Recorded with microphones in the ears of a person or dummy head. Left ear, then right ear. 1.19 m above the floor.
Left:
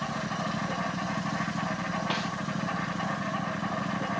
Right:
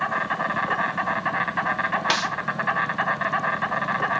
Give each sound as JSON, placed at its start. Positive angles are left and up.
{"t": 0.0, "sound": "an insect", "side_deg": -65, "distance_m": 2.5}
{"t": 2.1, "sound": "a snare drum", "side_deg": -60, "distance_m": 3.0}